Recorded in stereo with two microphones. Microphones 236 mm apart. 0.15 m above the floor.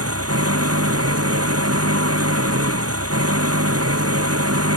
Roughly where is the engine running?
Right.